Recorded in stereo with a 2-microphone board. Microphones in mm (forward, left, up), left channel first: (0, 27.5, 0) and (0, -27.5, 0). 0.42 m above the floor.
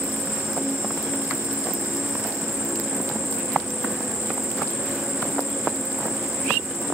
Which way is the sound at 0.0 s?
65° left (ahead or behind).